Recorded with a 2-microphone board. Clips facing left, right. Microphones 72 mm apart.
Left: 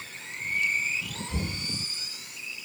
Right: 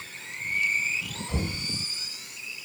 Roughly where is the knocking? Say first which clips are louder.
Right 3 dB; right.